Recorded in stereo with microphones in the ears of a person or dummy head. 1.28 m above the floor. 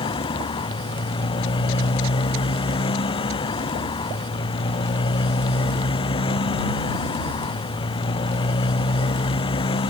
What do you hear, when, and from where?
0.0 s a motorcycle: 30° left (ahead or behind)